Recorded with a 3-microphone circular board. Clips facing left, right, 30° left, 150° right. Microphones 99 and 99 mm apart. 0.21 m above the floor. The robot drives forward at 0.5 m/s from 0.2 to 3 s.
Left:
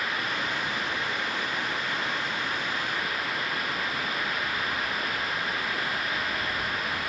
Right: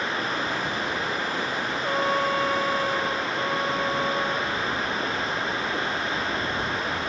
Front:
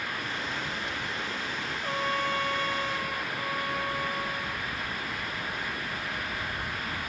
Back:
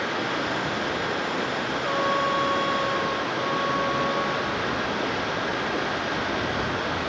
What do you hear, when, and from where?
0.0 s running water: 150° right
1.8 s a trumpet: 85° right; by 4.6 s 90° right